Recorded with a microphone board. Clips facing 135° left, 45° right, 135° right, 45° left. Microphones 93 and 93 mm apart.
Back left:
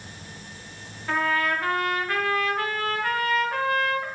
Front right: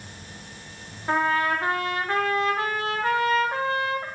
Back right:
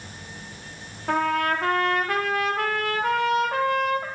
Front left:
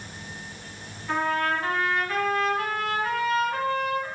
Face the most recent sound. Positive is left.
turn(degrees=-110)